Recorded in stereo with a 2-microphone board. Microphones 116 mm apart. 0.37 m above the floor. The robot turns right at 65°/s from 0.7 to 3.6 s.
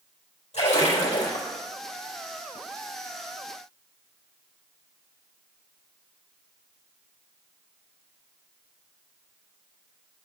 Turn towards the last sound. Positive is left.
turn(degrees=-100)